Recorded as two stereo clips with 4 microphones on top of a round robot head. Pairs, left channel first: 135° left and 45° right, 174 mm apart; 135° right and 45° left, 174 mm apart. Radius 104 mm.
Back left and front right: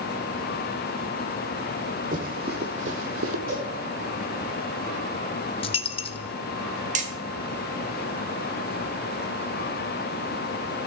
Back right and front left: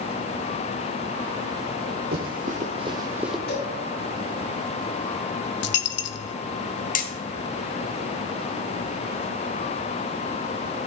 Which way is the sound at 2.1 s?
5° left.